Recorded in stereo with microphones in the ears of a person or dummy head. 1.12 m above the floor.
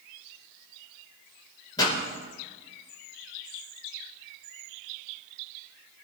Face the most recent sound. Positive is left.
turn(degrees=30)  # may be behind; listen again after turning